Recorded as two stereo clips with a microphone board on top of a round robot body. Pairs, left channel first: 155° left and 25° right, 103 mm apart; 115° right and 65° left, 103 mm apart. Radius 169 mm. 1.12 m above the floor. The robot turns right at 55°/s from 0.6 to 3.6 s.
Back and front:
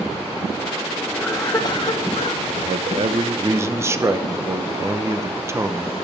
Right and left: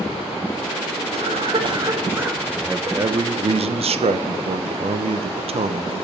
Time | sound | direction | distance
1.1 | a cough | 80° left | 2.0 m
2.5 | a man speaking | 15° right | 0.7 m